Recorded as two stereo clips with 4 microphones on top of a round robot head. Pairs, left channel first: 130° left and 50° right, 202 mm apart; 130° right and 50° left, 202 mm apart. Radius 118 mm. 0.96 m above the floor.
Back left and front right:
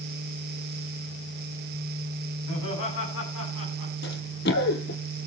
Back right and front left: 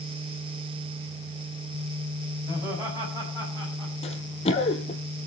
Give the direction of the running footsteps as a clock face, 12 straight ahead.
6 o'clock.